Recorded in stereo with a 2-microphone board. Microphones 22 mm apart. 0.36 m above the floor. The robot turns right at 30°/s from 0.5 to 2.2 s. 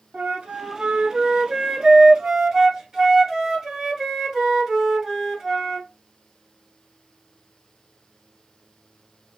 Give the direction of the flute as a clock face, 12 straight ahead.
3 o'clock.